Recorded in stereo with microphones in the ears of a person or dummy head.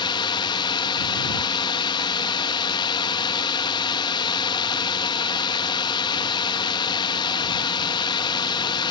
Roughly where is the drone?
Left.